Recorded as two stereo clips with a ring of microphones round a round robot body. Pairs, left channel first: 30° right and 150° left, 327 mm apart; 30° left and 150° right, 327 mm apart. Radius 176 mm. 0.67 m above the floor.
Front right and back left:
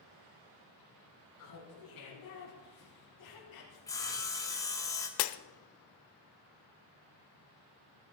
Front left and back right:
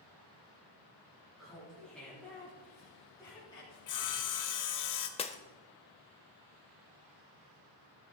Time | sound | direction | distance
1.4 | laughter | 60° right | 5.5 m
3.9 | sawing | 50° left | 1.4 m
5.2 | breaking glass | 40° right | 0.5 m